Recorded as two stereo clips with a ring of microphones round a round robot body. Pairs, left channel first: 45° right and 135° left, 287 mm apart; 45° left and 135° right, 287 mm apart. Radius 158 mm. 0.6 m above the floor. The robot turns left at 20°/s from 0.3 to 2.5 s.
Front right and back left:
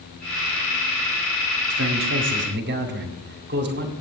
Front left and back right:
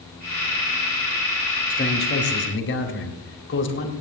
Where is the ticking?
No ticking in this recording.